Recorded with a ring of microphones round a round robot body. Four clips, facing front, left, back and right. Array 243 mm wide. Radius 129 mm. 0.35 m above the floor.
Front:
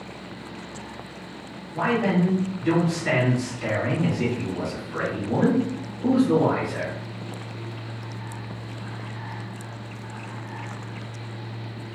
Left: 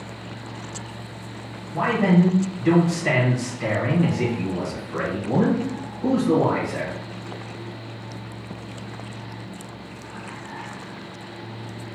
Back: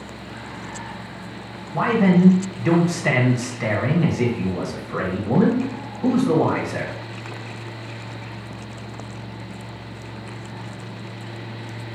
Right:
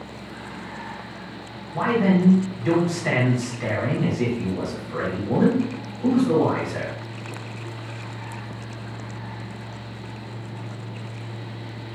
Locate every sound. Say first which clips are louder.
1.7 s a man speaking: left 1 dB, back 5 dB; straight behind, 2 m